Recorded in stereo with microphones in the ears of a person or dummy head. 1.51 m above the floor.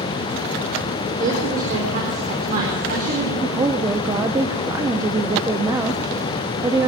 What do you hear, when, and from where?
1.2 s a woman speaking: 40° right (ahead or behind), 4 m
3.4 s a woman speaking: 15° right (ahead or behind), 1.1 m